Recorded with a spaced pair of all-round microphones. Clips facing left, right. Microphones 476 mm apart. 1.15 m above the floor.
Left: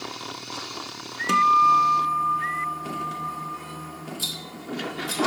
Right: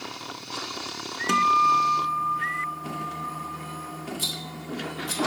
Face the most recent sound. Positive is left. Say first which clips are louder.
# right 1 dB
turn(degrees=-50)  # may be behind; listen again after turning